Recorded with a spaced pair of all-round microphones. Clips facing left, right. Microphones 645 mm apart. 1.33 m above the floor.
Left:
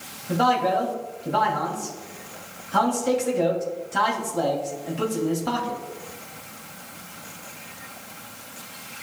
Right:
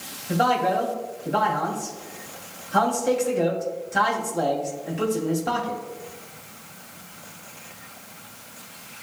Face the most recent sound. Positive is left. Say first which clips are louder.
# even
turn(degrees=30)  # may be behind; listen again after turning